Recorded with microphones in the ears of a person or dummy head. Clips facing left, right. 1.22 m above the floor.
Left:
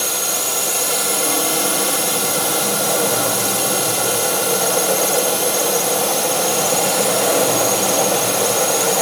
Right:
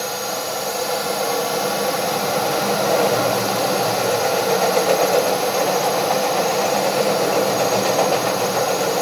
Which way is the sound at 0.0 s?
45° left (ahead or behind).